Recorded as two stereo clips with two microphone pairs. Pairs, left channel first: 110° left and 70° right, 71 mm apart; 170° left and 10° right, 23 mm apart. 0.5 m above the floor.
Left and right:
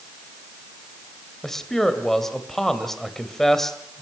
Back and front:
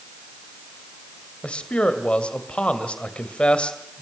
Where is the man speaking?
165° right, 2.5 m.